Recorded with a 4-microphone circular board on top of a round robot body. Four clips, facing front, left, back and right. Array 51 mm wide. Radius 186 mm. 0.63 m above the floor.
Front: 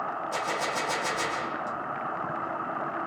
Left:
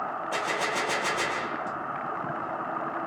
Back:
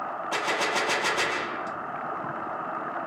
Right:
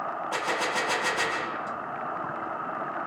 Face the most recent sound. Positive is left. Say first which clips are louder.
# right 1 dB, back 5 dB
turn(degrees=-175)